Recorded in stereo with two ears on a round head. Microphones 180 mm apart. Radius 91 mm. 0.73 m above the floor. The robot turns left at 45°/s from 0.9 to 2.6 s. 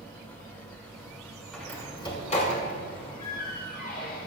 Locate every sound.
1.5 s a door slam: centre (ahead or behind), 6 m; by 4.3 s 50° left (ahead or behind), 6 m